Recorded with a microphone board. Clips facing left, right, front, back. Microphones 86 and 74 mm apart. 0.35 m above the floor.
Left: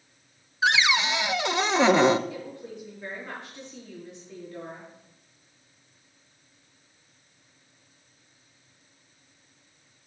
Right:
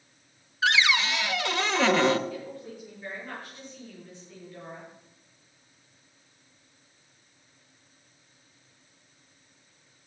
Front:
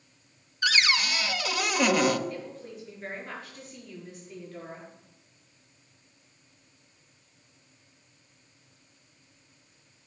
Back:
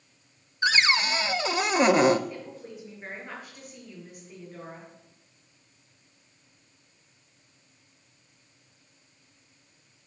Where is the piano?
No piano in this recording.